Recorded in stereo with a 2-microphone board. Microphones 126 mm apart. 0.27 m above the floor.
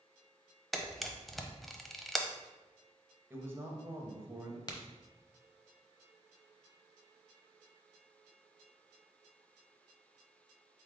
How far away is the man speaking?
About 0.9 m.